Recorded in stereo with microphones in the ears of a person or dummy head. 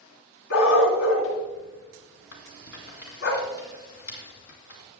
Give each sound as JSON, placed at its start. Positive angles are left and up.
{"t": 0.5, "sound": "a dog barking", "side_deg": 75, "distance_m": 2.5}
{"t": 2.3, "sound": "a rattle", "side_deg": 70, "distance_m": 2.5}